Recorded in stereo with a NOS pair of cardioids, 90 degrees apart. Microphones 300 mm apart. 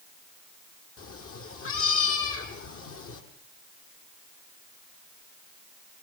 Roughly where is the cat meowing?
Ahead left.